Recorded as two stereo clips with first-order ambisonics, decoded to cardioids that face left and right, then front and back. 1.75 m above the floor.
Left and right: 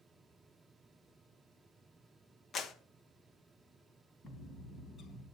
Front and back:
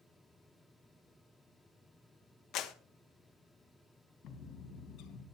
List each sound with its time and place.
2.5 s a clap: 35° left, 1.4 m
4.2 s a bird: 30° left, 3 m